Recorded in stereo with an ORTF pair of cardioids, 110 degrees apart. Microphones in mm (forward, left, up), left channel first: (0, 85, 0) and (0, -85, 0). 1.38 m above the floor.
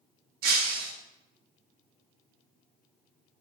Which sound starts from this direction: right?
Breaking glass, at 0.4 s.